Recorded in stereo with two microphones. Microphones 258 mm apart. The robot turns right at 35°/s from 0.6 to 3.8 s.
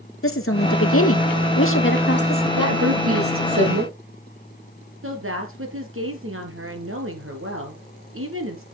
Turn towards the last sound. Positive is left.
turn(degrees=-55)  # may be behind; listen again after turning